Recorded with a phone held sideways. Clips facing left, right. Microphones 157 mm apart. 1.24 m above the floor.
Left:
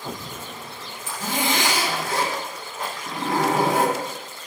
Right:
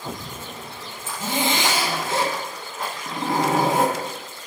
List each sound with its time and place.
1.1 s a zipper: 25° right (ahead or behind), 1.3 m